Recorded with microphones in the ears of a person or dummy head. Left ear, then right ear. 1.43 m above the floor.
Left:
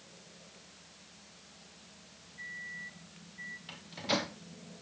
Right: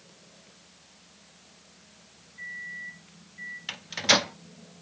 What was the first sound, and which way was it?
A microwave, 15° right (ahead or behind).